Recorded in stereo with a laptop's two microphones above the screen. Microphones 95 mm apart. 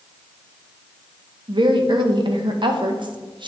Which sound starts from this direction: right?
A woman speaking, at 1.5 s.